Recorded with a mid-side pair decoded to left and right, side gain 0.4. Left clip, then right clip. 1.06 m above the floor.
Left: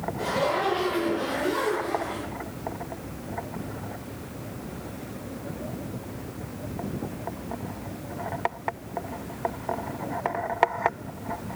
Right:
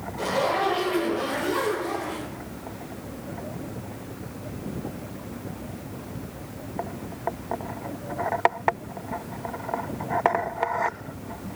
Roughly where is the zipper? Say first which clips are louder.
Right 2 dB; ahead right.